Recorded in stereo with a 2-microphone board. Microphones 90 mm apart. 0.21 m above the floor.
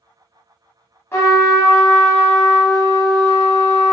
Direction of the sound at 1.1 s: 30° left (ahead or behind).